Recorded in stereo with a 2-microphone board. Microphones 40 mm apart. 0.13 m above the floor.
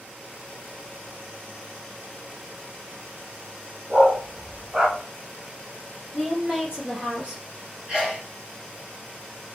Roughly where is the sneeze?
Centre.